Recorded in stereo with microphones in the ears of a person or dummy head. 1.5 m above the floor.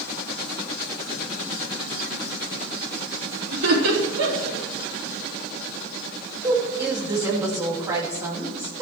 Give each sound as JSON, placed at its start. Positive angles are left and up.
{"t": 3.5, "sound": "laughter", "side_deg": -70, "distance_m": 4.0}
{"t": 6.4, "sound": "a woman speaking", "side_deg": -10, "distance_m": 2.5}